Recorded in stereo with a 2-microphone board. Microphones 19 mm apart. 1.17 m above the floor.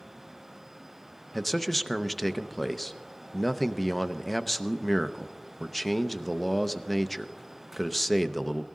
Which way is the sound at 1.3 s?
5° left (ahead or behind).